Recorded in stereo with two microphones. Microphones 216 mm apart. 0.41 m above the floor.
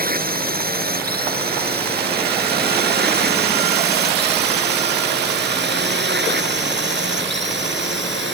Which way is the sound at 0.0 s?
45° right (ahead or behind).